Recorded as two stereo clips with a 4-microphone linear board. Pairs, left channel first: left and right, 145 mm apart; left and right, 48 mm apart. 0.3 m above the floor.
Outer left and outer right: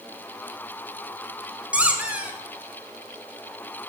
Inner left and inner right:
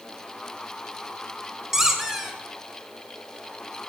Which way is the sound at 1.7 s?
10° right (ahead or behind).